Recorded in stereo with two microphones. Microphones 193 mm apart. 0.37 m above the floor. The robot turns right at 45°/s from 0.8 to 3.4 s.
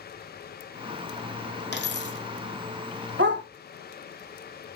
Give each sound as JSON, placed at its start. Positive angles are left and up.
{"t": 1.7, "sound": "a dropped coin", "side_deg": 60, "distance_m": 1.1}
{"t": 3.2, "sound": "a dog barking", "side_deg": -75, "distance_m": 0.9}